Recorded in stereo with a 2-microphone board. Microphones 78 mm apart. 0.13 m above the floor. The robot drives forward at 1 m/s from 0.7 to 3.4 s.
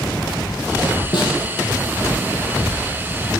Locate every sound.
1.1 s a snare drum: 60° left (ahead or behind), 5.5 m; by 1.3 s 65° left (ahead or behind), 5.5 m